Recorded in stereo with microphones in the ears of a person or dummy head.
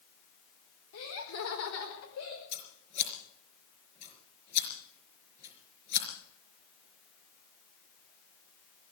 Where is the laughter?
75° left (ahead or behind), 4 m.